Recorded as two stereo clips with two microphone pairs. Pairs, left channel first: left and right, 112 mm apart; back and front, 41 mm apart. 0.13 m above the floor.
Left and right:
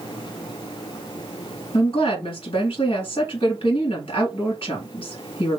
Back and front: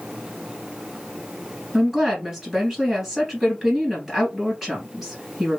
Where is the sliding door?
No sliding door in this recording.